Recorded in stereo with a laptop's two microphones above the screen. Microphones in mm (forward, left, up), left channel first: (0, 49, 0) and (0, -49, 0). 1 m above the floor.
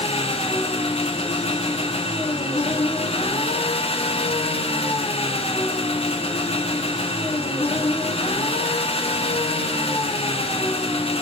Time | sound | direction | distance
0.0 | an engine running | 80° left | 1.2 m